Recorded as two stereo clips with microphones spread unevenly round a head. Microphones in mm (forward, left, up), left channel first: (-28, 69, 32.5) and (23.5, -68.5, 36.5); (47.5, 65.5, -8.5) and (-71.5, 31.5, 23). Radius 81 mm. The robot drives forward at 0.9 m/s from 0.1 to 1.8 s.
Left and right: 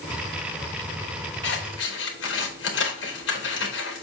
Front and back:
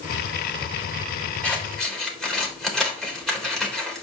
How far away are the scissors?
About 3 m.